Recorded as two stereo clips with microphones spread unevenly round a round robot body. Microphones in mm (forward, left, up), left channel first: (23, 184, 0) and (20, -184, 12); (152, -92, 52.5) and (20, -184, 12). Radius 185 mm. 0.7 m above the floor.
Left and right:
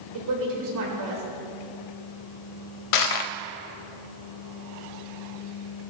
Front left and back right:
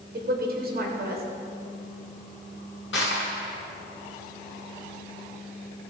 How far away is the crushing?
About 0.5 m.